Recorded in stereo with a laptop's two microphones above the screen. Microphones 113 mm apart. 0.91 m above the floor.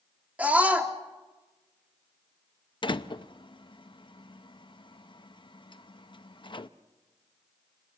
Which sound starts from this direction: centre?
A scream, at 0.4 s.